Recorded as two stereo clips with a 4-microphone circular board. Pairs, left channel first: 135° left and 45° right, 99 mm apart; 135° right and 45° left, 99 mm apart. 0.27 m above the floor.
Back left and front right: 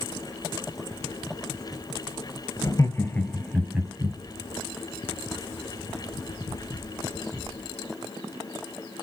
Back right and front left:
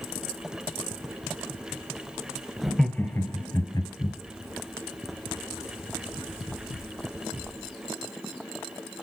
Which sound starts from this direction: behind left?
Laughter, at 2.6 s.